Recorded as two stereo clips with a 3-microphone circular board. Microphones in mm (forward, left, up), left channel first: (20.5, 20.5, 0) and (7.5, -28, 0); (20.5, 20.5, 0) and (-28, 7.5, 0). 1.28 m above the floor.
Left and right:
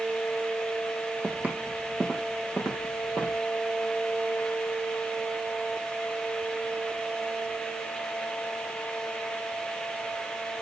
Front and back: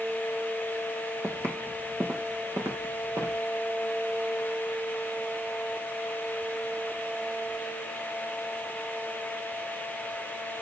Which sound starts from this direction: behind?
Footsteps, at 1.2 s.